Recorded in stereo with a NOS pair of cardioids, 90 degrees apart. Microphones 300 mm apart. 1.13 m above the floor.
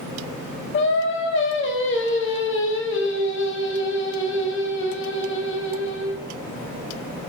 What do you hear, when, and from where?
0.7 s singing: 40° left, 0.8 m